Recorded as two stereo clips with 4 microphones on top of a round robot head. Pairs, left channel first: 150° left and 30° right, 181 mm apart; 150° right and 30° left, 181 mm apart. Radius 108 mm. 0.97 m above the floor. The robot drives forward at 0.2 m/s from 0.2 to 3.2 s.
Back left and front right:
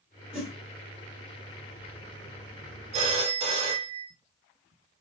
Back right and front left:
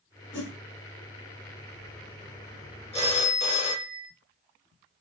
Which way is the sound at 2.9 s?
85° right.